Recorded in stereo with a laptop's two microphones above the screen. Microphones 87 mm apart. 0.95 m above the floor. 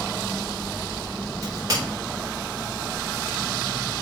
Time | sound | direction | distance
1.4 | a crack | 40° right (ahead or behind) | 3.5 m